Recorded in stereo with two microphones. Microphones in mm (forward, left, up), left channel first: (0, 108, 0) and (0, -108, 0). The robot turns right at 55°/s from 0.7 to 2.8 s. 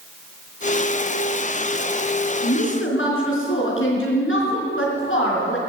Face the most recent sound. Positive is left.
turn(degrees=70)  # may be behind; listen again after turning